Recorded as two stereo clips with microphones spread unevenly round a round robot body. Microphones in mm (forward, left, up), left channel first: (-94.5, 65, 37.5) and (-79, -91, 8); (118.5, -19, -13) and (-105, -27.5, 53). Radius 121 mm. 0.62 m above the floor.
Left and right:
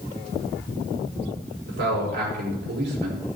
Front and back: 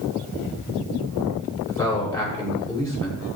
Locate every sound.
1.7 s a man speaking: 75° right, 6.5 m